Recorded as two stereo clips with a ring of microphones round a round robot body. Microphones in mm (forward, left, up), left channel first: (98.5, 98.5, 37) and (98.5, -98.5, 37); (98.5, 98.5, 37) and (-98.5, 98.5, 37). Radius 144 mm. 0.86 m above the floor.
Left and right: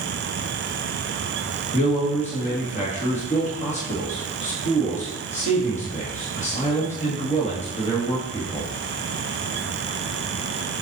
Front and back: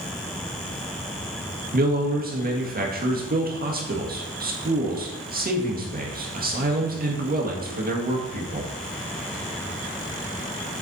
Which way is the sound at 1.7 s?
145° left.